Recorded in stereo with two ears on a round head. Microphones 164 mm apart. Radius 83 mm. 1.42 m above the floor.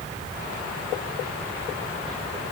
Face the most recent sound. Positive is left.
No sound to turn to.